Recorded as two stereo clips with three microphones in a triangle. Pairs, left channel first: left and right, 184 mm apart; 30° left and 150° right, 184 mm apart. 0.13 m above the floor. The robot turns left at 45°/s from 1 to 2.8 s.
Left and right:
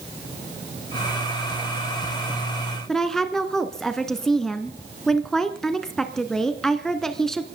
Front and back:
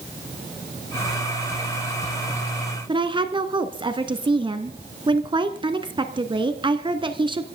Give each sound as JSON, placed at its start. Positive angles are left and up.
{"t": 2.9, "sound": "a woman speaking", "azimuth_deg": 175, "distance_m": 1.2}